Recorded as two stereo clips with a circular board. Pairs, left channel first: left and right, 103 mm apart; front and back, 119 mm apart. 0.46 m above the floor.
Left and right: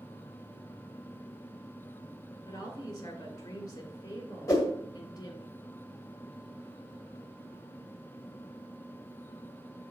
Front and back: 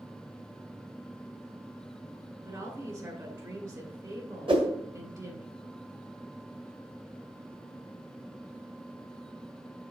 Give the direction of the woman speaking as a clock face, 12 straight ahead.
8 o'clock.